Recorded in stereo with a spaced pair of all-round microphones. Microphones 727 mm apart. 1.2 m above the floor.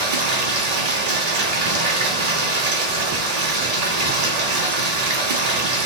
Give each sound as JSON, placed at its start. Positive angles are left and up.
{"t": 0.0, "sound": "running water", "side_deg": -60, "distance_m": 0.9}